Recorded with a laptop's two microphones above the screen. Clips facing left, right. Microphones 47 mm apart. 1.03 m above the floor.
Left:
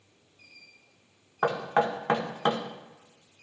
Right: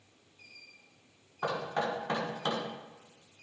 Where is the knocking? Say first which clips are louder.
Left 7 dB; 45° left (ahead or behind), 1.9 m.